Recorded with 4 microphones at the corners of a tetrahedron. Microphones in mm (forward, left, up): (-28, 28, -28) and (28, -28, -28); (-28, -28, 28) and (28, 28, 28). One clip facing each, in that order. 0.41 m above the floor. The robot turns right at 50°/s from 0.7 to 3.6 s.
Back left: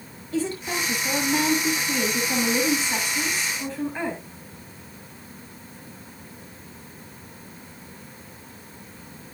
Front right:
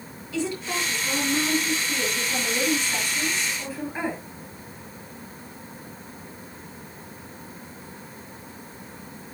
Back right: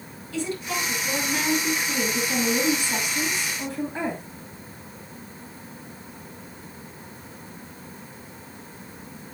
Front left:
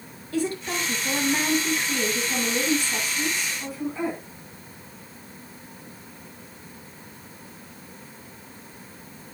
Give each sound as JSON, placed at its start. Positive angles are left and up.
{"t": 0.3, "sound": "a woman speaking", "azimuth_deg": 90, "distance_m": 6.5}